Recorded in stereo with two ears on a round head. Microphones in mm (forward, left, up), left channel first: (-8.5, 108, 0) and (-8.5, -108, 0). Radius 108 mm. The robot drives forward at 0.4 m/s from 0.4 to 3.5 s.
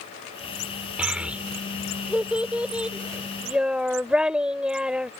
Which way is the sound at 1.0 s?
5° right (ahead or behind).